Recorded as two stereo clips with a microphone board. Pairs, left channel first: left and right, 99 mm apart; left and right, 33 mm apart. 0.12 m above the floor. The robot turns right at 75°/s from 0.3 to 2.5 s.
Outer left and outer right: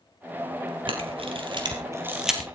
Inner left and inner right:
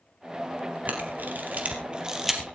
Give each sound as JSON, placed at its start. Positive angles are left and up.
{"t": 0.9, "sound": "a camera shutter", "side_deg": -55, "distance_m": 3.0}